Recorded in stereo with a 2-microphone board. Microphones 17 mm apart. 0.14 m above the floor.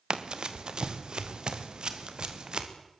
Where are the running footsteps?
55° right (ahead or behind), 2 m; by 2.7 s 60° right (ahead or behind), 3.5 m.